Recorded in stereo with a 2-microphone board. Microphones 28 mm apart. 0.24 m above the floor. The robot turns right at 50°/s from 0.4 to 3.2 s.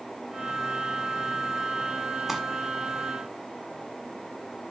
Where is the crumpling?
10° right (ahead or behind), 1.1 m; by 2.4 s 5° right (ahead or behind), 1.1 m.